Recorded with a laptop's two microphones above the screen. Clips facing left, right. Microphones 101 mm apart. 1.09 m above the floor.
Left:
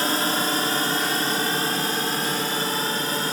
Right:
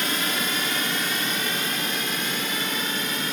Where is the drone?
35° left (ahead or behind).